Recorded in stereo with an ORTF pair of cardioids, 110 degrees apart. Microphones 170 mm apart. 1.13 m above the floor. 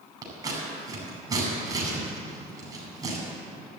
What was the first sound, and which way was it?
Scissors, 25° right.